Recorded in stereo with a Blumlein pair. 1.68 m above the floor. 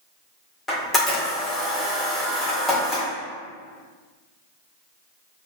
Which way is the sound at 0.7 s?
10° left.